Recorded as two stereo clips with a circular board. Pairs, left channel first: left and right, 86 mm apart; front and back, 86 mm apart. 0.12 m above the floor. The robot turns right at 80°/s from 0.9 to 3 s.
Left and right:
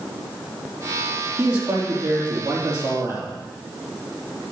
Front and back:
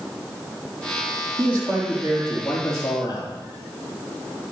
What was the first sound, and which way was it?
A man speaking, 165° right.